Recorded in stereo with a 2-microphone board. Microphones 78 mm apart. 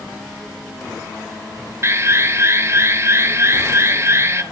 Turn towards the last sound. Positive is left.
turn(degrees=-35)  # may be behind; listen again after turning